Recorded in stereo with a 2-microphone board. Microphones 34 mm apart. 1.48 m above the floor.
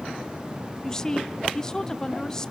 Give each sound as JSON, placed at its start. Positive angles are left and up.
{"t": 0.8, "sound": "a woman speaking", "side_deg": 15, "distance_m": 0.9}